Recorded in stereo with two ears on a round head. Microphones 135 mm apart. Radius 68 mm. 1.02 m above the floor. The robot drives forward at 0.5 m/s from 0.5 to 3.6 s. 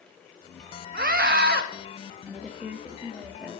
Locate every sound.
0.9 s a scream: 60° right (ahead or behind), 1.5 m; by 1.6 s 70° right (ahead or behind), 1.4 m
2.3 s a woman speaking: 10° right (ahead or behind), 1.2 m; by 3.6 s 5° right (ahead or behind), 1.9 m